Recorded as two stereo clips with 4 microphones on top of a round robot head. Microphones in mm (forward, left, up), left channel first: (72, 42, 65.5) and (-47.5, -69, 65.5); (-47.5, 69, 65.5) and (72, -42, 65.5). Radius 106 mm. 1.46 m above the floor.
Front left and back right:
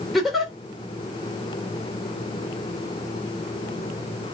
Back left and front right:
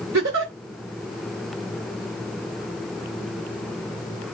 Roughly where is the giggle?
Ahead right.